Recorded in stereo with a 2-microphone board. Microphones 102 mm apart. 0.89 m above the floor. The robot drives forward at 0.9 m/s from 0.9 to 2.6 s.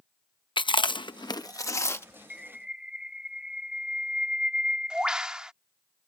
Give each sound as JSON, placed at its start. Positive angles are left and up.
{"t": 0.6, "sound": "chewing", "side_deg": 55}
{"t": 2.3, "sound": "a bird", "side_deg": -15}